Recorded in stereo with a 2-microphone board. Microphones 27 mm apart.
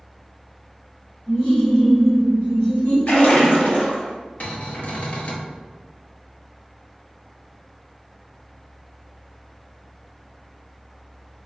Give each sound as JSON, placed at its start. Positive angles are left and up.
{"t": 1.3, "sound": "laughter", "side_deg": 60, "distance_m": 1.8}
{"t": 3.1, "sound": "a splash", "side_deg": 70, "distance_m": 1.4}
{"t": 4.4, "sound": "a cupboard door", "side_deg": 60, "distance_m": 0.7}